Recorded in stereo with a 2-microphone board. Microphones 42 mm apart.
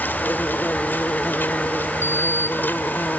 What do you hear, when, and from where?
0.0 s an insect: 55° left (ahead or behind)
2.0 s a sliding door: 70° left (ahead or behind)